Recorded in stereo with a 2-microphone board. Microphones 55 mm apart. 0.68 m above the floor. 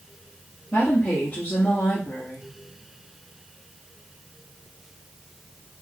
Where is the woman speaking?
30° left (ahead or behind), 1.3 m.